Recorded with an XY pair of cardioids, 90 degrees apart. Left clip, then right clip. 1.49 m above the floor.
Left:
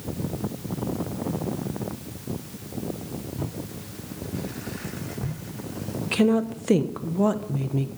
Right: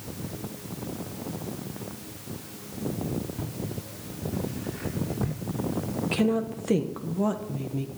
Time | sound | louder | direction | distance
3.4 | footsteps | left 1 dB | straight ahead | 6 m
6.1 | a woman speaking | left 5 dB | 35° left | 1.1 m